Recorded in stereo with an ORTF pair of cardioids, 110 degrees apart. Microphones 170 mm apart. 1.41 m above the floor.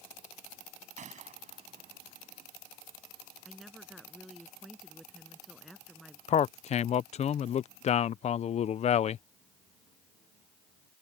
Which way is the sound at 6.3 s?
40° left.